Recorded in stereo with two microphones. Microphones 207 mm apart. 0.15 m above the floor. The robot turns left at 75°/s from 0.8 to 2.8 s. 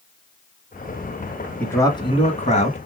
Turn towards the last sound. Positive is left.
turn(degrees=75)